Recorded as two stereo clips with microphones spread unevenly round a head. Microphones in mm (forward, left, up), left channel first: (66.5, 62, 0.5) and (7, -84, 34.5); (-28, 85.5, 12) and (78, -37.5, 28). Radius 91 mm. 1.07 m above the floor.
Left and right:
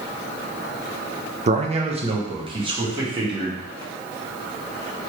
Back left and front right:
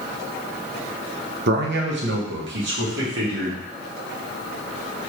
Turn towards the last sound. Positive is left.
turn(degrees=-45)